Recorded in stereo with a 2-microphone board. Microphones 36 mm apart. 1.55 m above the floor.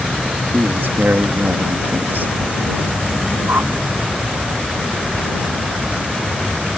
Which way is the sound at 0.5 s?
80° right.